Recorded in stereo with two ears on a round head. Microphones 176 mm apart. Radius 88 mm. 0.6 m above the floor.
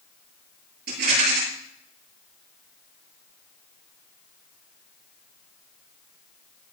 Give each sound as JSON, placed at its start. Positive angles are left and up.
{"t": 0.9, "sound": "a rattle", "side_deg": -55, "distance_m": 8.5}